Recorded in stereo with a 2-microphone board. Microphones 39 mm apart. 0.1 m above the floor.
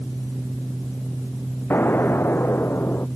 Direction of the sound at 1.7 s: 70° left (ahead or behind).